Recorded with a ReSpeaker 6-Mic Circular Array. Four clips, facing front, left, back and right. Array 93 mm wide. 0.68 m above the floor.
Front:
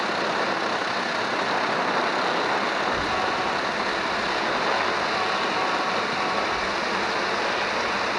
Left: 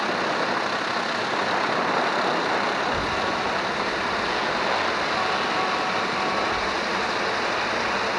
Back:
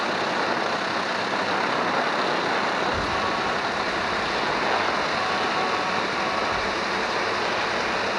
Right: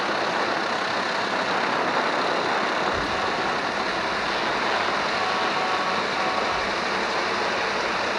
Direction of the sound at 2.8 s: 155° right.